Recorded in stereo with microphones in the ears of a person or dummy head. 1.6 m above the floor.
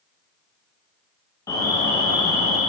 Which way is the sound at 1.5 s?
15° left (ahead or behind).